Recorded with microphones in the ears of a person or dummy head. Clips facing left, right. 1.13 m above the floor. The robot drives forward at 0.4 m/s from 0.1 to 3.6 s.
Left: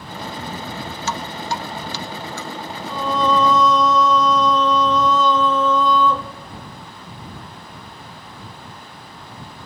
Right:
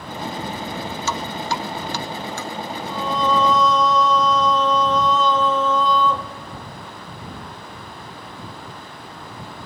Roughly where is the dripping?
Right.